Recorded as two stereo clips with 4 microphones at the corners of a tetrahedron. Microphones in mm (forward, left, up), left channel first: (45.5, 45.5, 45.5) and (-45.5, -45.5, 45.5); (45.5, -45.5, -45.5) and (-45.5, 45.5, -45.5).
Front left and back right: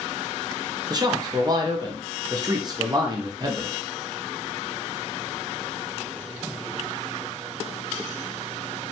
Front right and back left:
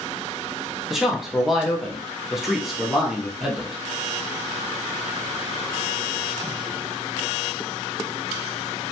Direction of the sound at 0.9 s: 140° right.